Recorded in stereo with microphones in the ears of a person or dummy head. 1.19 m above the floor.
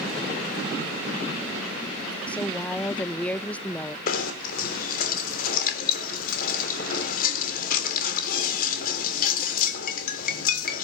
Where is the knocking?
55° left (ahead or behind), 3.5 m.